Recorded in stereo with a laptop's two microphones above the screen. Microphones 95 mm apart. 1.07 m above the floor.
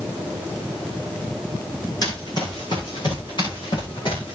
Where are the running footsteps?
45° left (ahead or behind), 4.5 m; by 4.3 s 60° left (ahead or behind), 7 m.